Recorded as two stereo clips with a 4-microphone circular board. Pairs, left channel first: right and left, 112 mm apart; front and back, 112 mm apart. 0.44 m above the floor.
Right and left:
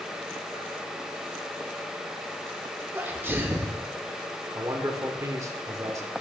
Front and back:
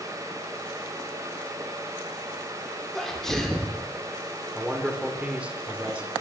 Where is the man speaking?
115° left, 0.9 m.